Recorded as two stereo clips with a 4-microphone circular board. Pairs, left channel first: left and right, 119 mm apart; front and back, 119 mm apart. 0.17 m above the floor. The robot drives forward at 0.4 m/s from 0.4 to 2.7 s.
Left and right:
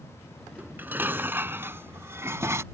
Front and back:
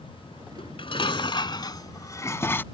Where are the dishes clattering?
20° right; by 2.6 s 55° right.